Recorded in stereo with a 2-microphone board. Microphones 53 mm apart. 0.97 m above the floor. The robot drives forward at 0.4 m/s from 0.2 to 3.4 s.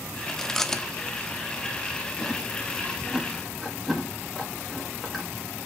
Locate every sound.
0.3 s chewing: 10° left (ahead or behind), 0.6 m; by 5.3 s 5° left (ahead or behind), 1.5 m